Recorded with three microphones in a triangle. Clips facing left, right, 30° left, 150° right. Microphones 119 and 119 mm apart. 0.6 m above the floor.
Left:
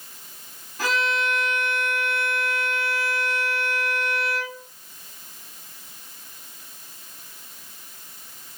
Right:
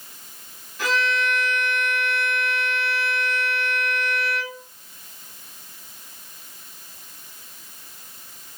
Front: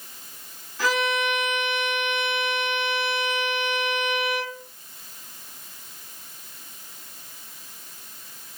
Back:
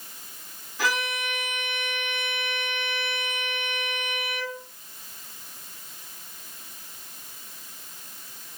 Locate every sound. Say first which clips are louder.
0.8 s a violin: right 1 dB, front 5 dB; 135° left, 1.8 m